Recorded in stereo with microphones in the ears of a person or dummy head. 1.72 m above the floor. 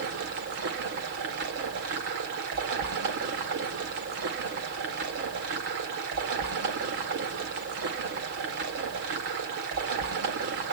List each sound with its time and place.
0.0 s running water: 45° right (ahead or behind), 1.8 m